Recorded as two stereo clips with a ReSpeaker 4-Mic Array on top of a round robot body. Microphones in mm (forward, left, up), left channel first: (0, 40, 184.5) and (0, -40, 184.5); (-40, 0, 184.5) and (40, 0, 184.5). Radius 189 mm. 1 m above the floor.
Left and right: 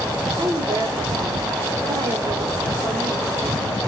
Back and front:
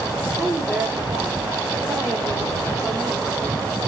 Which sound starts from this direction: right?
A woman speaking, at 0.4 s.